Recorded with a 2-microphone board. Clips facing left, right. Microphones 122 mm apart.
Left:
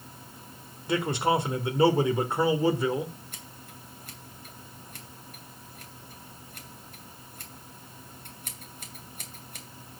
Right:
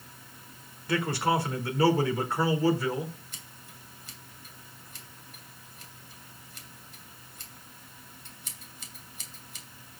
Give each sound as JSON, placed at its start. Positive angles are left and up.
{"t": 0.9, "sound": "a man speaking", "side_deg": 20, "distance_m": 1.5}
{"t": 3.3, "sound": "scissors", "side_deg": 55, "distance_m": 2.5}